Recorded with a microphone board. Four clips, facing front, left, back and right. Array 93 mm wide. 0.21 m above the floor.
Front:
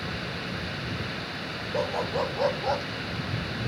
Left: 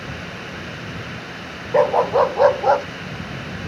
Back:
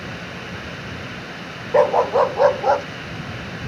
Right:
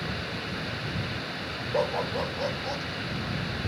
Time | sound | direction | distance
1.7 | a dog barking | 150° left | ?